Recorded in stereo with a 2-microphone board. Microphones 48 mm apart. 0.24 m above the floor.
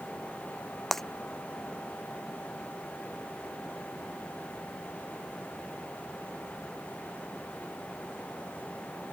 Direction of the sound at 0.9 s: 5° left (ahead or behind).